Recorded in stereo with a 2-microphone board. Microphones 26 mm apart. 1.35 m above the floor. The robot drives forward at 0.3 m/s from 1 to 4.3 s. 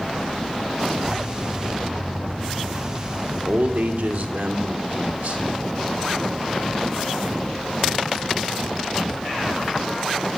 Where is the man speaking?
85° right, 3.5 m.